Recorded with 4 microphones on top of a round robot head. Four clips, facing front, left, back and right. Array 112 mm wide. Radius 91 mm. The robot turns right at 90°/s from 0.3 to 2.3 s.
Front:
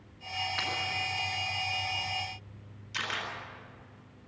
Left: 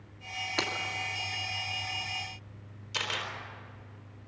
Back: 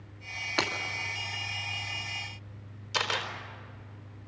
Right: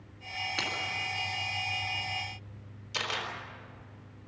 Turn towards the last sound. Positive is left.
turn(degrees=180)